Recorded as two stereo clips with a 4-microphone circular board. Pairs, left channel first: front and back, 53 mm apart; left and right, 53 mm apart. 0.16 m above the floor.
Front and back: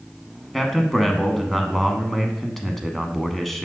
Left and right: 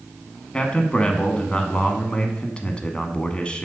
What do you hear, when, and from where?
0.5 s a man speaking: 85° left, 1.1 m